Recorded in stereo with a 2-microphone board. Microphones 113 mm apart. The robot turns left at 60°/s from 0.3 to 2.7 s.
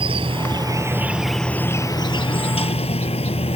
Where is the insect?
120° right; by 3.6 s 100° left.